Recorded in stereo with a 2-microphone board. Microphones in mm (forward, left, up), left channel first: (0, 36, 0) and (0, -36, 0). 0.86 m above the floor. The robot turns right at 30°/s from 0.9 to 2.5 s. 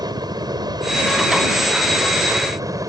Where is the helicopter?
105° right; by 2.9 s 55° right.